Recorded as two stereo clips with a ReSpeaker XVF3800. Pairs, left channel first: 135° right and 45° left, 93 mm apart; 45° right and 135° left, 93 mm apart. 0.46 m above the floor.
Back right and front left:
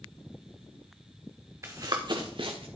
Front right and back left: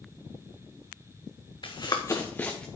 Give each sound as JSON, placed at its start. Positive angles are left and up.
{"t": 1.6, "sound": "running footsteps", "azimuth_deg": -15, "distance_m": 1.7}